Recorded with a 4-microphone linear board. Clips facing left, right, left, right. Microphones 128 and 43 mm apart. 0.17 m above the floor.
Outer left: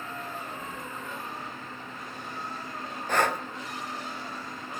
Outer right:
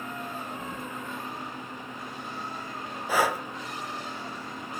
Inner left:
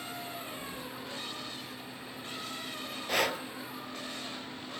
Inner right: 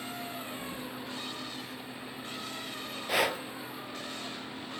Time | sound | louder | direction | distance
0.6 | keys jangling | outer right 2 dB, inner right 2 dB | 30° right (ahead or behind) | 1.4 m
3.1 | breathing | outer right 1 dB, inner right 1 dB | 5° right (ahead or behind) | 0.7 m